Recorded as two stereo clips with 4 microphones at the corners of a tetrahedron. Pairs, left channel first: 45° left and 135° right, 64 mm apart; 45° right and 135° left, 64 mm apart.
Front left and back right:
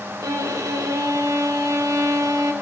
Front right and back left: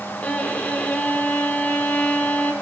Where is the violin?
110° right, 0.8 m.